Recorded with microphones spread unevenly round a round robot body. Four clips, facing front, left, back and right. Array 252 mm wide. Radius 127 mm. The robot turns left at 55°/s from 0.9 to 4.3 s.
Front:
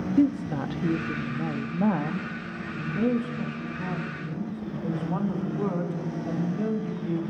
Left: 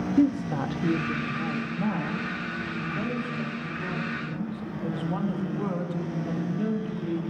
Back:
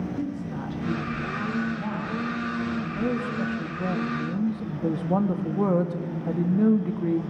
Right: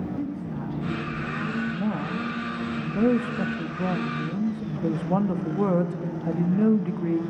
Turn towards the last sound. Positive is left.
turn(degrees=-145)